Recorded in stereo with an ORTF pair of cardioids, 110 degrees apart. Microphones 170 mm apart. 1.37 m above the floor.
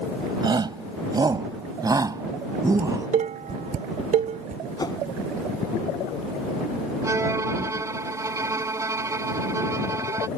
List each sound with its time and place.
0.4 s a shout: 25° right; by 3.1 s 20° right
2.8 s dishes clattering: 50° right
4.8 s a whoosh: 25° left
7.0 s a violin: 20° right